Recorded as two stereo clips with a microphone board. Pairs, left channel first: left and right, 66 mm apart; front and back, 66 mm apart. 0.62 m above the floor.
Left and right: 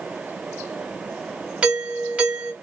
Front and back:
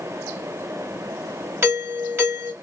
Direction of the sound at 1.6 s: 150° right.